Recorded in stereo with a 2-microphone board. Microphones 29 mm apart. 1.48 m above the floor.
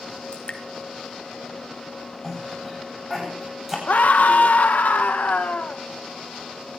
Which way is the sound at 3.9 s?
65° left (ahead or behind).